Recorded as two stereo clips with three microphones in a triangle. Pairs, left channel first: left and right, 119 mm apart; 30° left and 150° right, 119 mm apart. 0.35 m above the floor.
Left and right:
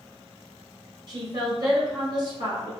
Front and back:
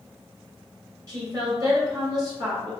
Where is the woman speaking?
110° right, 1.6 m.